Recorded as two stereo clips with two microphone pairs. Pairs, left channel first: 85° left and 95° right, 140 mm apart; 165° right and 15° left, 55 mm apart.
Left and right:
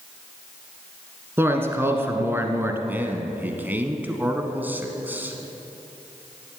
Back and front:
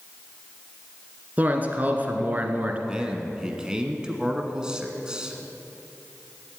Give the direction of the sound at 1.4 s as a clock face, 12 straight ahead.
1 o'clock.